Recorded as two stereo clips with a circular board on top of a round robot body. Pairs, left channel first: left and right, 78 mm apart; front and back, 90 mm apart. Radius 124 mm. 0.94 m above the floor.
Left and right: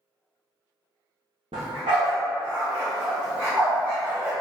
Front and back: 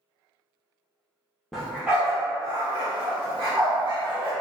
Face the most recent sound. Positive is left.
turn(degrees=-155)